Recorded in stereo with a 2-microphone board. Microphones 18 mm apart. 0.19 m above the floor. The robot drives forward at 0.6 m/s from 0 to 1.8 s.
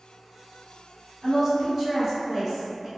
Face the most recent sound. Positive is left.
turn(degrees=-20)  # may be behind; listen again after turning